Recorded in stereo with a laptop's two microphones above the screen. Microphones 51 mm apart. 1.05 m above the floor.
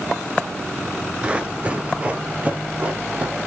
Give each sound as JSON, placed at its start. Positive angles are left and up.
{"t": 1.2, "sound": "running footsteps", "side_deg": -20, "distance_m": 1.0}